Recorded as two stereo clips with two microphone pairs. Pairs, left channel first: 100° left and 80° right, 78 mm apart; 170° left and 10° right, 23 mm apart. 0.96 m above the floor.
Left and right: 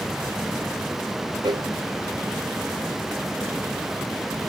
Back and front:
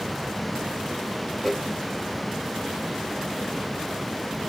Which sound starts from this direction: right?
A cowbell, at 1.4 s.